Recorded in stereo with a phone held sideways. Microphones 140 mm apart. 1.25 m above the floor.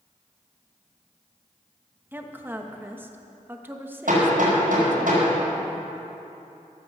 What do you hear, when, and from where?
2.1 s a woman speaking: 15° right (ahead or behind), 1.2 m
4.1 s hammering: 75° right (ahead or behind), 5 m